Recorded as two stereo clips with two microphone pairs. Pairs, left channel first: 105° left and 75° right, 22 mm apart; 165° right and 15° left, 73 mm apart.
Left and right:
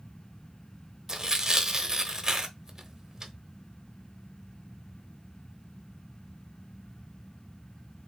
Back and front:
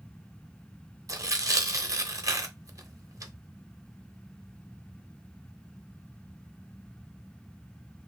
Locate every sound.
1.1 s tearing paper: 15° right, 0.7 m